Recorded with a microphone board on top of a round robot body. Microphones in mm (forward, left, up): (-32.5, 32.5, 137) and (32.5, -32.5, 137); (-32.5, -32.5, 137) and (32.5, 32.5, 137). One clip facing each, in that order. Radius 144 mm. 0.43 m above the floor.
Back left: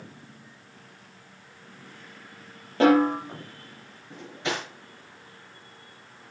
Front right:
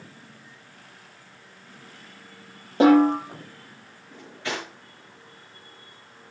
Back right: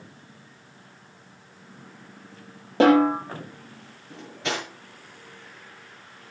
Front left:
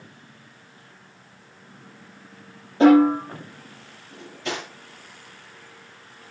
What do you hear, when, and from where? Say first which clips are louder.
2.8 s a snare drum: front right 3 dB, front left 3 dB; 115° right, 6 m
4.1 s cutlery clinking: back left 1 dB, back right 1 dB; 155° right, 6 m